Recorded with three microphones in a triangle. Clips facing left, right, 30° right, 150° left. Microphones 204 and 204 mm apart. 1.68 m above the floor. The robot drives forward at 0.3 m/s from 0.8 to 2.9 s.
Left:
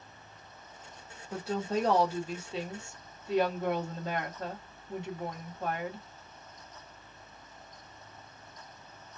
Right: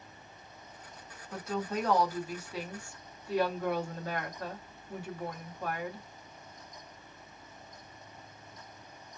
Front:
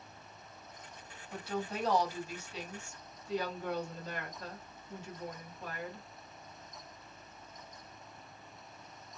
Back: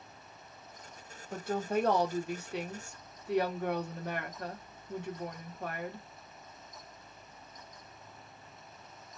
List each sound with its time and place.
1.3 s a woman speaking: 135° left, 0.8 m; by 6.1 s 155° left, 1.1 m